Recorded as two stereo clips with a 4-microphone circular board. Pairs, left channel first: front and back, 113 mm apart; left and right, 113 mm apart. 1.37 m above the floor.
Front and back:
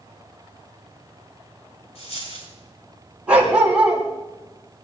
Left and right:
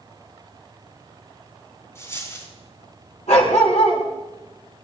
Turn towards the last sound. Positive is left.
turn(degrees=105)